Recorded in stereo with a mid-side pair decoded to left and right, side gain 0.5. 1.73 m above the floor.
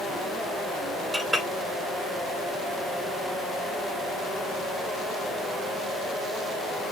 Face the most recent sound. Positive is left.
turn(degrees=-5)